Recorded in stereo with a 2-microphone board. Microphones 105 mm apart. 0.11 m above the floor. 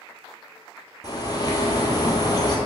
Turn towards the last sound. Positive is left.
turn(degrees=40)  # may be behind; listen again after turning